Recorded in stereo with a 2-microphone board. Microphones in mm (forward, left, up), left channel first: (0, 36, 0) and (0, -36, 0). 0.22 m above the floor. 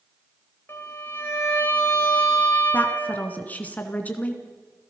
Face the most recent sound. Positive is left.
turn(degrees=25)  # may be behind; listen again after turning